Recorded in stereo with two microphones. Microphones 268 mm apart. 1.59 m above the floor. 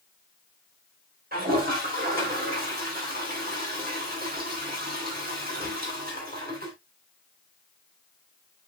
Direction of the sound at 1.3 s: 35° right (ahead or behind).